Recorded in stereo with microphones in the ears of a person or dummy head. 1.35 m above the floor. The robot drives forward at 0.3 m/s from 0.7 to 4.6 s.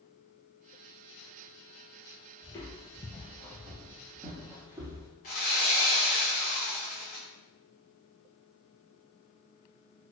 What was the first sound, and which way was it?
Footsteps, 20° left (ahead or behind).